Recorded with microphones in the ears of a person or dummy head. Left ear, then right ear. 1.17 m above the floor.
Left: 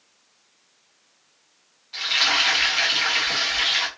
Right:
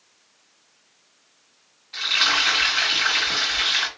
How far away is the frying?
About 1.5 m.